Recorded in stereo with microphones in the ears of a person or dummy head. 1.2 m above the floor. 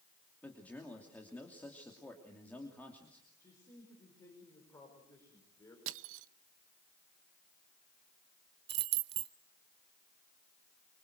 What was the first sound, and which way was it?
A man speaking, 15° left (ahead or behind).